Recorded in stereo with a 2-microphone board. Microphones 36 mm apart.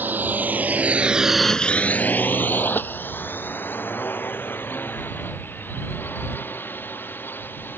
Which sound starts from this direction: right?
A drone, at 0.0 s.